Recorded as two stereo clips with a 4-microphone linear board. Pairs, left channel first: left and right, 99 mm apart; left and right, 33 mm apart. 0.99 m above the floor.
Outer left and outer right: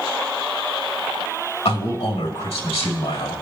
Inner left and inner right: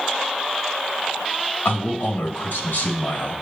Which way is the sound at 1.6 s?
75° left (ahead or behind).